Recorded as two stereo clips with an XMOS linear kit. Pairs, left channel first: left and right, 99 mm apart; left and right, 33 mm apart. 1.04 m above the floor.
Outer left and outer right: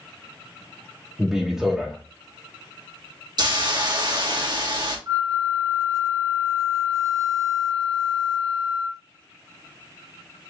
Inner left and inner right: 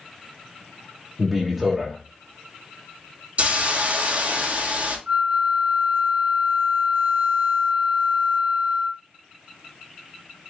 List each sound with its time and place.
1.2 s a man speaking: 5° right (ahead or behind), 1.0 m
3.4 s a hiss: 50° right (ahead or behind), 1.5 m
5.1 s a flute: 40° right (ahead or behind), 0.6 m